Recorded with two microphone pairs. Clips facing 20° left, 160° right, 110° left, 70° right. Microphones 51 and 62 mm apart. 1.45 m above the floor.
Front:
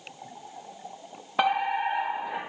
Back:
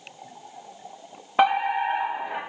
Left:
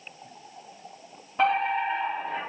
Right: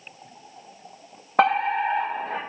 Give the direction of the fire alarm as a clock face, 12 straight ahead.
3 o'clock.